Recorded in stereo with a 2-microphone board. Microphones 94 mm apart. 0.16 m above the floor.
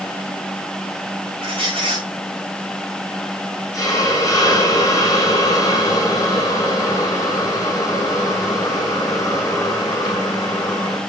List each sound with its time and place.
1.4 s a squeak: 70° right (ahead or behind), 5 m
3.7 s a hiss: 40° left (ahead or behind), 7 m